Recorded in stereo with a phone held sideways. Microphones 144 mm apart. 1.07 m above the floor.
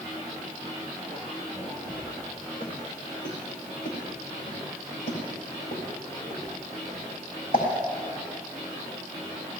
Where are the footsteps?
65° left (ahead or behind), 5 m.